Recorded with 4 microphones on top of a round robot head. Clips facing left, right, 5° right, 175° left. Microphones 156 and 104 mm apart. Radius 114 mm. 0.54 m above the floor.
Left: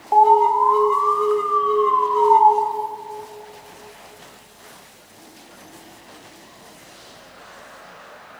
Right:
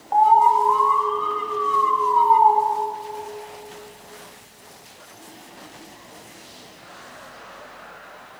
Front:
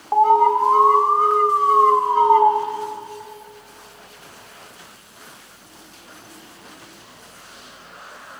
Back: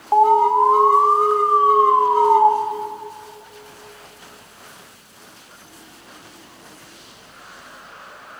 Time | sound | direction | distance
0.1 | an alarm | 100° left | 3 m